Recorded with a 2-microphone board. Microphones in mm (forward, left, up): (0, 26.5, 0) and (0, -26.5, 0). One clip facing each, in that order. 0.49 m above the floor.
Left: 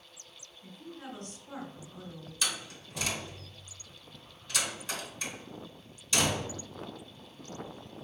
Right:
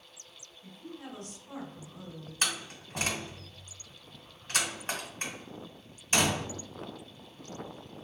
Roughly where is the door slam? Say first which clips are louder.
Right 2 dB; right.